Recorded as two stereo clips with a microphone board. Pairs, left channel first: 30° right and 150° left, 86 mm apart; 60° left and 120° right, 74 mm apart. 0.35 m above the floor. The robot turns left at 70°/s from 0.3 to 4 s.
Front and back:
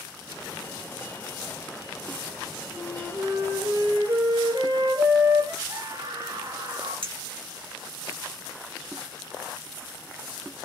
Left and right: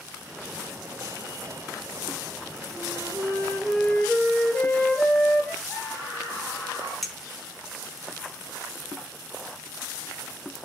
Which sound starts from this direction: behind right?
A flute, at 2.7 s.